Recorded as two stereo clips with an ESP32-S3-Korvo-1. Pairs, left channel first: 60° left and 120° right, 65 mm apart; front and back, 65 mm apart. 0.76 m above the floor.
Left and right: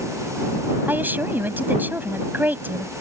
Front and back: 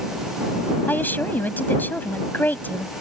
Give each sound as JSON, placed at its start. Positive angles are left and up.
{"t": 0.9, "sound": "a woman speaking", "azimuth_deg": -60}